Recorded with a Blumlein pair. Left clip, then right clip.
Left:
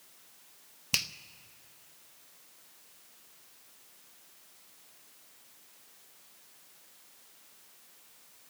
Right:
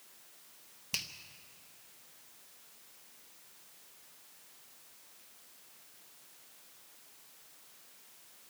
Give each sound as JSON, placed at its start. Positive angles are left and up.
{"t": 0.9, "sound": "a finger snap", "azimuth_deg": 25, "distance_m": 0.7}